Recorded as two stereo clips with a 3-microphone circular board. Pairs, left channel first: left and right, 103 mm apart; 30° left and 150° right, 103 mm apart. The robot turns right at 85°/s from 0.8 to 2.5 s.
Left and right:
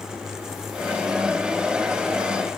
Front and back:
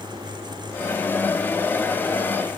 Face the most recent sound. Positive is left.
No sound to turn to.